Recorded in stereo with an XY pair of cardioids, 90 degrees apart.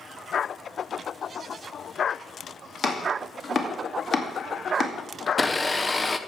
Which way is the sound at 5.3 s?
20° left.